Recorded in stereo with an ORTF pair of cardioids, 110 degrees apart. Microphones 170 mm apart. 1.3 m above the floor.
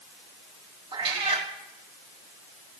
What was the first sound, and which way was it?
A cat meowing, 35° right.